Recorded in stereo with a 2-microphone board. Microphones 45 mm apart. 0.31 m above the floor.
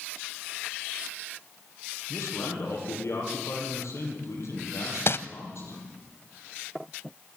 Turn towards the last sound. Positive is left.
turn(degrees=55)  # may be behind; listen again after turning